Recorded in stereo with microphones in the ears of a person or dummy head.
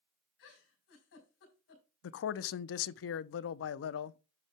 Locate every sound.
0.4 s a giggle: 80° left, 3.5 m
2.0 s a man speaking: 80° left, 0.6 m